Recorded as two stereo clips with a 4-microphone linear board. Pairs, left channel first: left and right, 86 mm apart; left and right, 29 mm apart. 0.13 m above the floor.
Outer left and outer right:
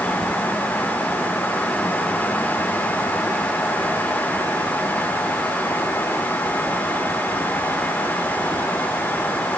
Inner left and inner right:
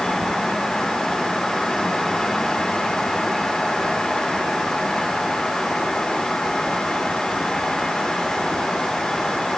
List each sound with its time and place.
Only background noise.